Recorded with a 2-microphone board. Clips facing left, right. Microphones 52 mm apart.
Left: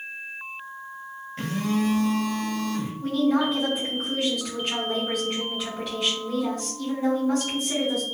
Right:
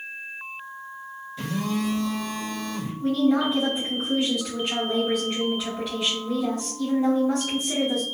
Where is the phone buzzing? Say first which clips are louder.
Left 2 dB; 45° left (ahead or behind), 1.3 m.